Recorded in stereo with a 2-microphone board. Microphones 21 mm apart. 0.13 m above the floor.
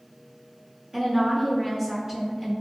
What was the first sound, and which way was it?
A woman speaking, 30° right (ahead or behind).